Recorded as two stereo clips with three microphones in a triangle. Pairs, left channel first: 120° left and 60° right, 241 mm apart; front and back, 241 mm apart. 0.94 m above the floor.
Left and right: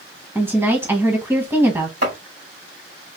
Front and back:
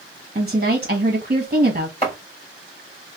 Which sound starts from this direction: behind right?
A woman speaking, at 0.3 s.